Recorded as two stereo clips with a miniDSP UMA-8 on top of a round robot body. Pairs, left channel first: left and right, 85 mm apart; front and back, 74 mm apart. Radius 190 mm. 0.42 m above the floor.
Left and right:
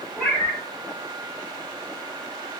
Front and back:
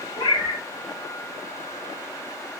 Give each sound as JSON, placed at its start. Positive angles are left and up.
{"t": 0.2, "sound": "a cat meowing", "azimuth_deg": 5, "distance_m": 0.8}